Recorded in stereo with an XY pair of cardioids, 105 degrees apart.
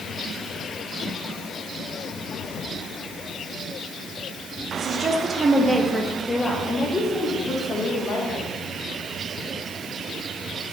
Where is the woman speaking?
60° right, 1.4 m; by 8.5 s 50° left, 3 m.